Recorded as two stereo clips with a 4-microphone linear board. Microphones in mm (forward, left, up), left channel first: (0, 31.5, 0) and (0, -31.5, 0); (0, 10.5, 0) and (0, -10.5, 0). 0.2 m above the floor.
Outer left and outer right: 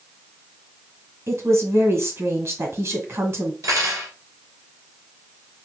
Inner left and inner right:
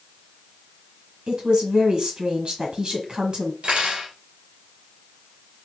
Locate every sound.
1.3 s a woman speaking: 45° right (ahead or behind), 1.6 m
3.6 s cutlery clinking: 65° right (ahead or behind), 2 m